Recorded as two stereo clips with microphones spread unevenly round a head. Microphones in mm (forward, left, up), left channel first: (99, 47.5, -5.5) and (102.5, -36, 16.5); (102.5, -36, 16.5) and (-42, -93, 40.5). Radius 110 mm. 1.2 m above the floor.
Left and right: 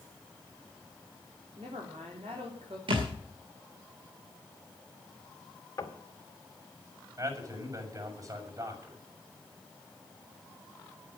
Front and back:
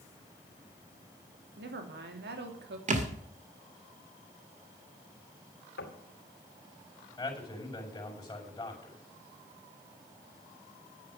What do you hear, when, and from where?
1.6 s a woman speaking: 155° right, 3 m
2.9 s a thud: 125° right, 2 m
5.8 s knocking: 45° left, 2.5 m
7.2 s a man speaking: 45° right, 6 m